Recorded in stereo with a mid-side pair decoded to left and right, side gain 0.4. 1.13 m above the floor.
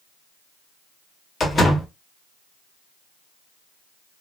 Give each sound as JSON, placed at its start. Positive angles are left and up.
{"t": 1.4, "sound": "a door slam", "azimuth_deg": 40, "distance_m": 1.2}